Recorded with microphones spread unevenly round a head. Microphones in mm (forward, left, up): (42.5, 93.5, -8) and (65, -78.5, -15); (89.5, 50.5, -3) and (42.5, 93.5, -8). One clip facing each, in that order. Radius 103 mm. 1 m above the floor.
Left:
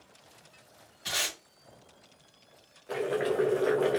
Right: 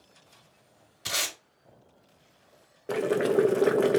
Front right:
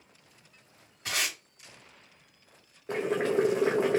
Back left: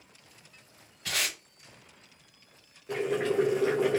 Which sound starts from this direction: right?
Boiling, at 2.9 s.